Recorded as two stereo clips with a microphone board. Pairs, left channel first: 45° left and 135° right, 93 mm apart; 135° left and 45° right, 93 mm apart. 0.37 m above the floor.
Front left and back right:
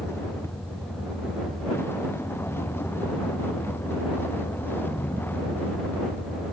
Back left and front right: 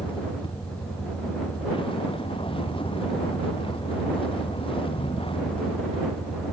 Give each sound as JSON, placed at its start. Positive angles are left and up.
{"t": 0.0, "sound": "a vehicle", "azimuth_deg": 110}